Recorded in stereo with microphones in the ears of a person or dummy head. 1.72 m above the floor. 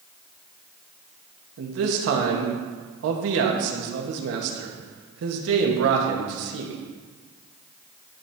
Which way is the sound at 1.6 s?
75° right (ahead or behind).